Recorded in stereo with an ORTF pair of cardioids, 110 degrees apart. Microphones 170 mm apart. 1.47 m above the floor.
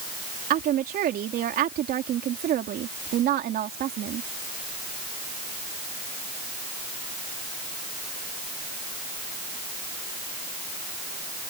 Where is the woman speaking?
60° right.